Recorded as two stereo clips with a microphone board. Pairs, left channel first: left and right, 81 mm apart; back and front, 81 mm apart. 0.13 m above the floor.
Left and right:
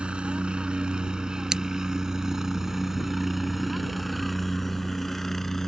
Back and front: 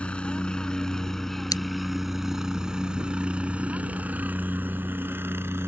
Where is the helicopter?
140° right; by 5.7 s 10° left.